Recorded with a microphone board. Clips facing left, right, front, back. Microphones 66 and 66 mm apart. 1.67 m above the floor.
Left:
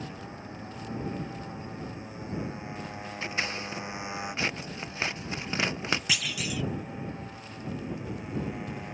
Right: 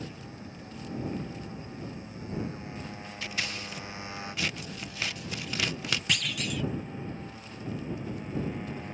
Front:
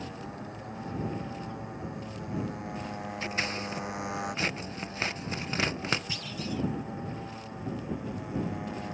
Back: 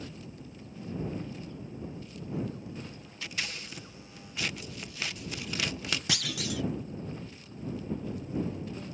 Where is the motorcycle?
25° left; by 8.9 s 10° left.